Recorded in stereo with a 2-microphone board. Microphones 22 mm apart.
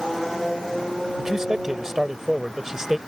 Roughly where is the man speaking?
Right.